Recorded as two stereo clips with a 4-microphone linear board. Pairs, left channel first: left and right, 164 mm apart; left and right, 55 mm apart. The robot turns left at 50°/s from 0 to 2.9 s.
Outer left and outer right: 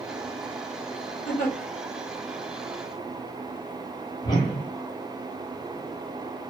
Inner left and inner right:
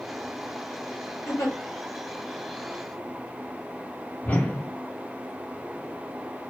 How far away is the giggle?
About 1.9 m.